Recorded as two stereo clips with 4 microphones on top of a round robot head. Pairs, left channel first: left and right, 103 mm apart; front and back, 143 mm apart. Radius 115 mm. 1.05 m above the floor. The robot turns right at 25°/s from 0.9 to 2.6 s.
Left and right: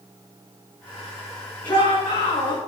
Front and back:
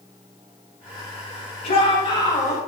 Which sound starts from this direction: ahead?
A shout, at 1.6 s.